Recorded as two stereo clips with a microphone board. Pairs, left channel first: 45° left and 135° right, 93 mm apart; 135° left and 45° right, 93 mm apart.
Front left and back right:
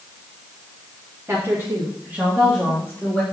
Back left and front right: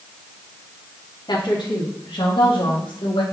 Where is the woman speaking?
165° left, 2.5 m; by 3.2 s 135° left, 2.5 m.